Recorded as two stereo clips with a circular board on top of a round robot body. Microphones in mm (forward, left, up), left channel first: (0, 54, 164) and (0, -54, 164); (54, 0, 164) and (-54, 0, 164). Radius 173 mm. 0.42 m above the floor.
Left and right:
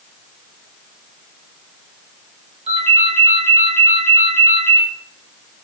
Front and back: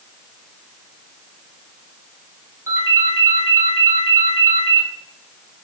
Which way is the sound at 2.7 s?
115° right.